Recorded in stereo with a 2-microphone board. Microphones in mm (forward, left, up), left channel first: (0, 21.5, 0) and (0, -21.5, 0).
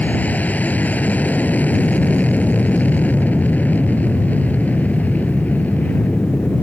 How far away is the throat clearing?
No throat clearing in this recording.